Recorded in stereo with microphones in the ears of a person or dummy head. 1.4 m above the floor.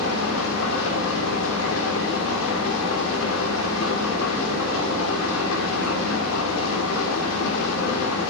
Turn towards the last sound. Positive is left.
turn(degrees=80)